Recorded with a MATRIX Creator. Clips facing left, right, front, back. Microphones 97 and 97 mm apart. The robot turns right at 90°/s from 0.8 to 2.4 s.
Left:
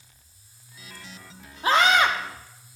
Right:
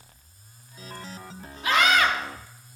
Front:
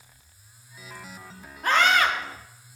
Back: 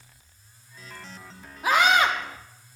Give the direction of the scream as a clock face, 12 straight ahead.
9 o'clock.